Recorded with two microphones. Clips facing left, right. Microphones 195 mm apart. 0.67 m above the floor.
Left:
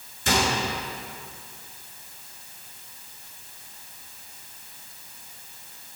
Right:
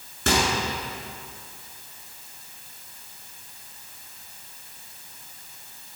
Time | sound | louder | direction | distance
0.3 | a microwave | right 1 dB | 60° right (ahead or behind) | 5.5 m